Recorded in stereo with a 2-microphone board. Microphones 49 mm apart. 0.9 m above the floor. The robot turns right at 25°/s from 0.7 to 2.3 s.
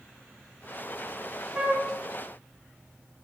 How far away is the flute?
About 1.2 m.